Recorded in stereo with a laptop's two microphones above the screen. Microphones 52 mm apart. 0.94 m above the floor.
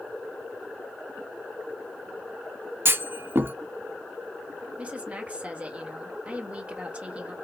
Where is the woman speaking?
25° right (ahead or behind), 1.3 m.